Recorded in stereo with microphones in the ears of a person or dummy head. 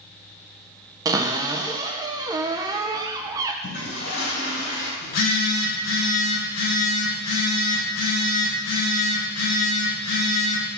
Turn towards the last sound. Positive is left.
turn(degrees=85)